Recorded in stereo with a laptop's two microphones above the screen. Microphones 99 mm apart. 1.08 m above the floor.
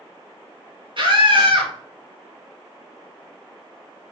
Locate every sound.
1.0 s a scream: 55° right (ahead or behind), 1.7 m